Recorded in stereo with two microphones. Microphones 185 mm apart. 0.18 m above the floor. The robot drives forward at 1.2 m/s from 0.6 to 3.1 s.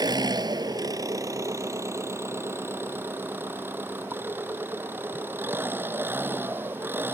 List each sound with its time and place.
0.0 s an engine running: 20° right (ahead or behind); by 7.1 s 10° right (ahead or behind)